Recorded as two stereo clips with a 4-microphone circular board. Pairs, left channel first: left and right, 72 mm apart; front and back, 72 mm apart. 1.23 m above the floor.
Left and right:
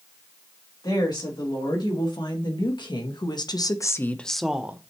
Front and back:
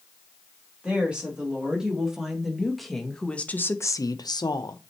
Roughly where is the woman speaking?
Left.